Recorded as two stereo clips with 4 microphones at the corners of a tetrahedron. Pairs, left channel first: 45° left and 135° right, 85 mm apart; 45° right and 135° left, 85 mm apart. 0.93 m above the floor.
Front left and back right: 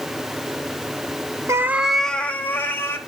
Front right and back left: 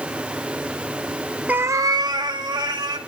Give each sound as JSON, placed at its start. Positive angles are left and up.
{"t": 1.5, "sound": "a cat meowing", "azimuth_deg": -160, "distance_m": 0.6}